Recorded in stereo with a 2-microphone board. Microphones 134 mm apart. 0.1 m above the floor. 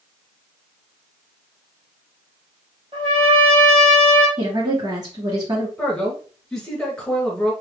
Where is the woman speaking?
30° right (ahead or behind), 1.9 m.